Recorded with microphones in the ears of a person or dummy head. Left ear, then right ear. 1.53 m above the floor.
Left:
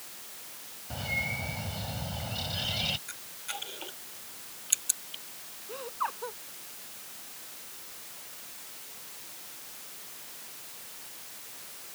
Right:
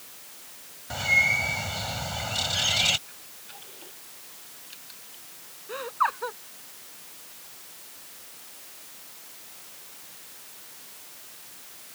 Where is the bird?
60° right (ahead or behind).